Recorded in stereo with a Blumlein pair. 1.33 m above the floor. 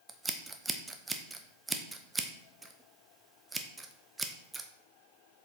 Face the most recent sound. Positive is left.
turn(degrees=-10)